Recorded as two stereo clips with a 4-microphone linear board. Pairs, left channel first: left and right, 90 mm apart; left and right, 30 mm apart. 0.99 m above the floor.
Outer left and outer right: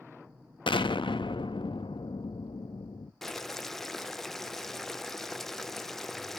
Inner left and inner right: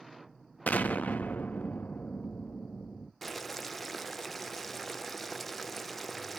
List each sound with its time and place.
0.7 s an explosion: 70° left (ahead or behind), 0.6 m
3.2 s boiling: 5° left (ahead or behind), 0.5 m